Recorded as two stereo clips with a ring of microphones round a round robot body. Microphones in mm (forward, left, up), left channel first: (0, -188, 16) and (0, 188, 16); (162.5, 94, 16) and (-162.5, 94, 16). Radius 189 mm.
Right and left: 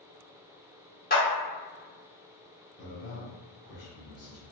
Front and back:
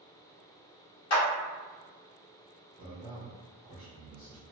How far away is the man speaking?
About 0.9 m.